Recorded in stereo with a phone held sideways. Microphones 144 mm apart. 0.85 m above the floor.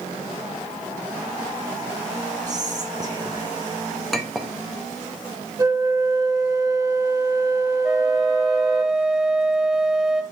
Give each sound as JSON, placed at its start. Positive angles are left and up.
{"t": 2.5, "sound": "whispering", "side_deg": -30, "distance_m": 0.5}
{"t": 4.1, "sound": "a clink", "side_deg": 0, "distance_m": 0.7}
{"t": 5.6, "sound": "a flute", "side_deg": -25, "distance_m": 0.6}
{"t": 7.8, "sound": "a flute", "side_deg": -5, "distance_m": 0.7}